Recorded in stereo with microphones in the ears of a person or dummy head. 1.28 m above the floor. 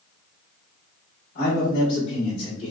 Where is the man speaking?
50° left (ahead or behind), 1.8 m; by 2.7 s 25° left (ahead or behind), 1.4 m.